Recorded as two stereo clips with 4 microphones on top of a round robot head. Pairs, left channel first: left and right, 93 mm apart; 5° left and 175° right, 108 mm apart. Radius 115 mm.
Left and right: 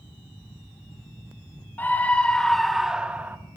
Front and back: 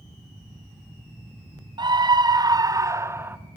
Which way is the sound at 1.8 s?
155° left.